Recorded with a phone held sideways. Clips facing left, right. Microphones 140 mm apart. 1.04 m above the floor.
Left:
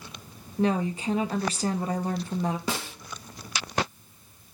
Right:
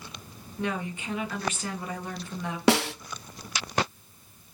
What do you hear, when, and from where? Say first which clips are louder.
0.6 s a woman speaking: left 7 dB; 35° left (ahead or behind), 1.7 m
2.7 s a snare drum: right 10 dB; 75° right (ahead or behind), 0.7 m